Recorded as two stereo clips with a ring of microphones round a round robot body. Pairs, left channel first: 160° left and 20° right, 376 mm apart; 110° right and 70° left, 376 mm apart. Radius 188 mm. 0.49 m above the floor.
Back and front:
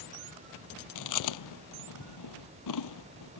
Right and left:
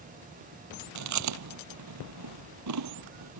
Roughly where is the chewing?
Behind left.